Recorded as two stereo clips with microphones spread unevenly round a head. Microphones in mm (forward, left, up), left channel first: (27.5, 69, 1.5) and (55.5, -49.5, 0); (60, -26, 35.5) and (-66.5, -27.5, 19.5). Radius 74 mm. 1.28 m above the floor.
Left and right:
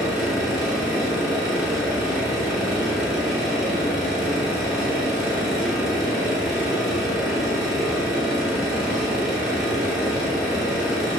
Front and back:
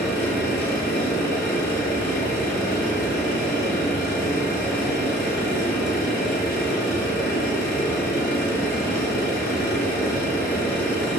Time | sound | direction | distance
0.0 | a machine running | 10° left | 1.7 m